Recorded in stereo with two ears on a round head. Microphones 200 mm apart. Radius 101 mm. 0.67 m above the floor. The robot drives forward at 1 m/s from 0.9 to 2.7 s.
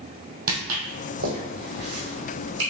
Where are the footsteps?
40° right (ahead or behind), 1.4 m; by 2.6 s 55° right (ahead or behind), 1.9 m.